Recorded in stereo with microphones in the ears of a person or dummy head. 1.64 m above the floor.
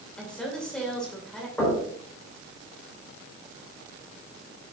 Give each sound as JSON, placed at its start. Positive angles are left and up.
{"t": 0.2, "sound": "a woman speaking", "side_deg": 10, "distance_m": 2.5}
{"t": 1.6, "sound": "knocking", "side_deg": 15, "distance_m": 5.5}